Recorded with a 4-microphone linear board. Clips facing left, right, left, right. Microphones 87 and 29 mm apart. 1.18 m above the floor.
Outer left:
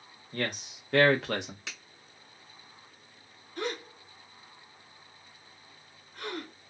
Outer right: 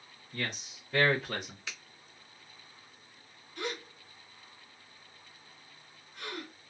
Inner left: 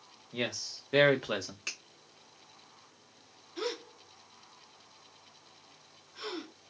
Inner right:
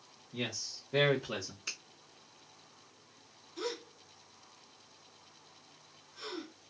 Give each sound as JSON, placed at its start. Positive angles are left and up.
{"t": 0.3, "sound": "a man speaking", "side_deg": 50, "distance_m": 1.2}
{"t": 1.7, "sound": "a finger snap", "side_deg": 80, "distance_m": 1.7}
{"t": 3.6, "sound": "a gasp", "side_deg": 40, "distance_m": 0.8}